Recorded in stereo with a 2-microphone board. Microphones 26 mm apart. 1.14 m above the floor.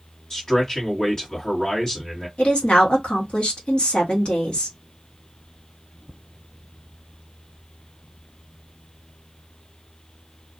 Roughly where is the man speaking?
Left.